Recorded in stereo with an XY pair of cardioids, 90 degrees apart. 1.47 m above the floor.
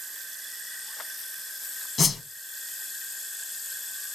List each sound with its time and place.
2.0 s a whoosh: 60° left, 1.3 m